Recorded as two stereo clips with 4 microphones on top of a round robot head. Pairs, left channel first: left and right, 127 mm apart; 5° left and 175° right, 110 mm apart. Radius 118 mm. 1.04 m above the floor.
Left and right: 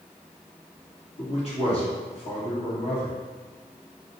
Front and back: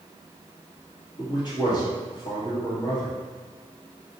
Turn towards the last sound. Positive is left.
turn(degrees=55)